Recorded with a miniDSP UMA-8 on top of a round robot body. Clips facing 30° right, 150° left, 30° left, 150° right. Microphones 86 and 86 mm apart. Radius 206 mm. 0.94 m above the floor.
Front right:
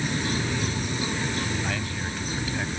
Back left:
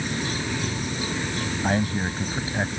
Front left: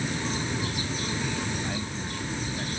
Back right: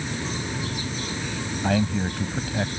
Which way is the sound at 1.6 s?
150° right.